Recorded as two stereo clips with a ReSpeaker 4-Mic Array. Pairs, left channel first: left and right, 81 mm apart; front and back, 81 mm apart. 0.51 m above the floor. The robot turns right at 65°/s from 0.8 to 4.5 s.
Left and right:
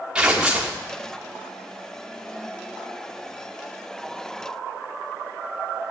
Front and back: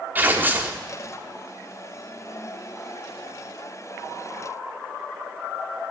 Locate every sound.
0.1 s tearing paper: 155° right, 1.3 m